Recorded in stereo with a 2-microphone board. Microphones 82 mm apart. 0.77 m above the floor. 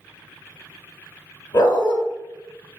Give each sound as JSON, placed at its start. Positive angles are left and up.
{"t": 1.5, "sound": "a dog barking", "side_deg": 50, "distance_m": 0.9}